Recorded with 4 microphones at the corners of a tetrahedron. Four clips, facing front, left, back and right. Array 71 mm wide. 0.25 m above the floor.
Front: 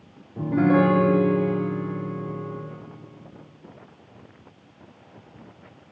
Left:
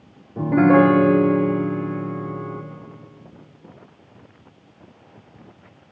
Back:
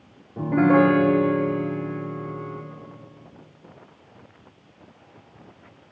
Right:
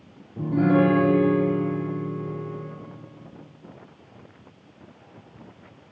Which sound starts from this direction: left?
A piano, at 0.4 s.